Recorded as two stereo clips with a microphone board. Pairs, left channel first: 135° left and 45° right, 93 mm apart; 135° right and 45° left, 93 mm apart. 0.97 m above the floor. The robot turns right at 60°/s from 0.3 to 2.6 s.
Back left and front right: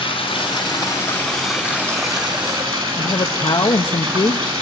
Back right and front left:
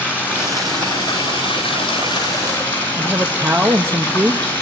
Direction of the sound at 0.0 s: 155° left.